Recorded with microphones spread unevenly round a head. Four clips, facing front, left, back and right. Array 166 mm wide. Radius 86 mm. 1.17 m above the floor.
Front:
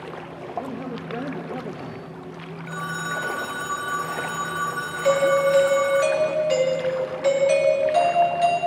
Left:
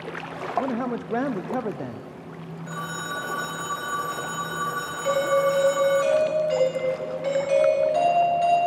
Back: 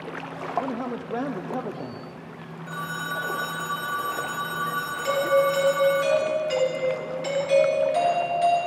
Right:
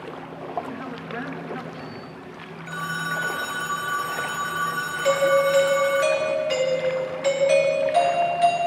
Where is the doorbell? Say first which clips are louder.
Right 2 dB, front 3 dB; 40° right, 3.5 m.